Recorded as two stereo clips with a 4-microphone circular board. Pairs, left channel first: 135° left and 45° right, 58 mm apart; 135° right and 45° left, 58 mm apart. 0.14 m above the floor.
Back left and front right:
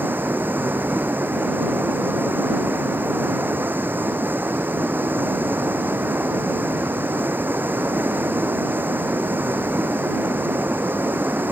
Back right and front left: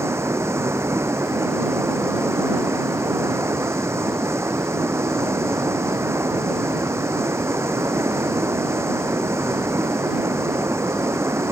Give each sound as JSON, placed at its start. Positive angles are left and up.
{"t": 0.0, "sound": "running water", "azimuth_deg": 10}